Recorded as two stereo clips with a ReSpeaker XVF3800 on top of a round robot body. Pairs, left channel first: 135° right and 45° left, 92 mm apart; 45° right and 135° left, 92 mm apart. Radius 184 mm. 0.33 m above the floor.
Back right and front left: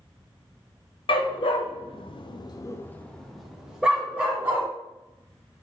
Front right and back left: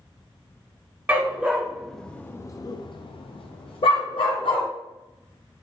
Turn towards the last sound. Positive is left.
turn(degrees=-25)